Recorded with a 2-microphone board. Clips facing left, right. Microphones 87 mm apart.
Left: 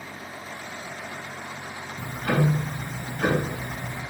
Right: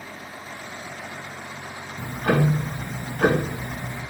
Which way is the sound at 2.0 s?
60° right (ahead or behind).